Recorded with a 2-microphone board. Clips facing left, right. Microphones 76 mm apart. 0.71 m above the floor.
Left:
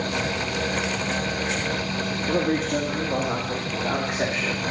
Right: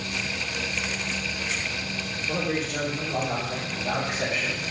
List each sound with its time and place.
2.3 s a man speaking: 50° left (ahead or behind), 1.8 m; by 4.6 s 35° left (ahead or behind), 1.6 m